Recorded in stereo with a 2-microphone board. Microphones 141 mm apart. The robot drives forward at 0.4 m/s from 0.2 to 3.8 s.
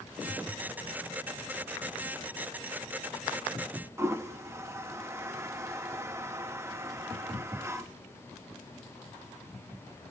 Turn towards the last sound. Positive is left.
turn(degrees=-20)  # may be behind; listen again after turning